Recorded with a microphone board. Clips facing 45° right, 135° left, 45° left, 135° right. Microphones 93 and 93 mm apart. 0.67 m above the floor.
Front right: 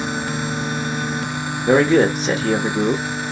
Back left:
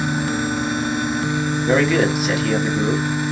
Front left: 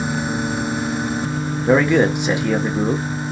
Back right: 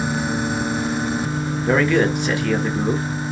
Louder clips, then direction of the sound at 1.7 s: Front right 4 dB, front left 3 dB; 15° right.